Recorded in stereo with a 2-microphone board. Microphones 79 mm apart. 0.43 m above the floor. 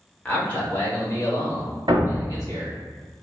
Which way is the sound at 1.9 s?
75° right (ahead or behind).